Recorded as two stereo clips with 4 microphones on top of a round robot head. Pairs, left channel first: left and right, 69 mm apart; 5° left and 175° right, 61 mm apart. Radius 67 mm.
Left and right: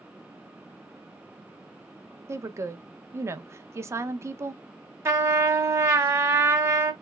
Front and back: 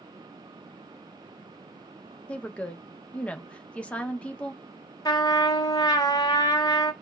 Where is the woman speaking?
55° right, 0.8 m.